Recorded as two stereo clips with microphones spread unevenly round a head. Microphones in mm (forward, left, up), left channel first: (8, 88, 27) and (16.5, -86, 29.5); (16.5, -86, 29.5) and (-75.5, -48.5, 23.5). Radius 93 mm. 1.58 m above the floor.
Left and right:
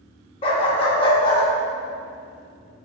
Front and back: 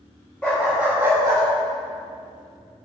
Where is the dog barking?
50° left, 1.1 m; by 1.4 s 145° left, 1.0 m.